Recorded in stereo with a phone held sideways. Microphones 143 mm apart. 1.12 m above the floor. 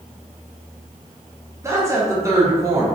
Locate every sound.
1.6 s a woman speaking: 20° right (ahead or behind), 0.6 m